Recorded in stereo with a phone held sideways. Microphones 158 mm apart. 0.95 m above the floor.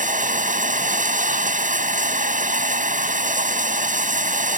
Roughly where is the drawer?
No drawer in this recording.